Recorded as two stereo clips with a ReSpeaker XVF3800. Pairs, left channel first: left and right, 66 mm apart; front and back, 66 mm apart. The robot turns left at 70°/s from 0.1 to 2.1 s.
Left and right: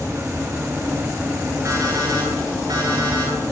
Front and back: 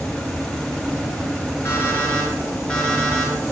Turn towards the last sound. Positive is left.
turn(degrees=-80)